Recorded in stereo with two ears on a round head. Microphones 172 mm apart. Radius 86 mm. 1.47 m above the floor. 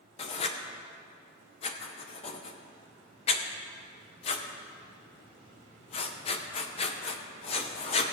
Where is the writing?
30° left (ahead or behind), 0.7 m.